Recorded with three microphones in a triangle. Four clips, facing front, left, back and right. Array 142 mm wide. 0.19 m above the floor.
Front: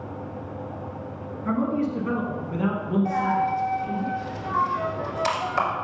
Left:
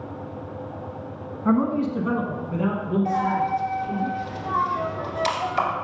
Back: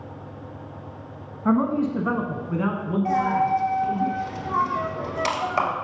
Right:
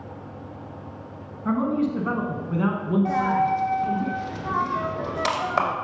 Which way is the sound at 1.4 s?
155° left.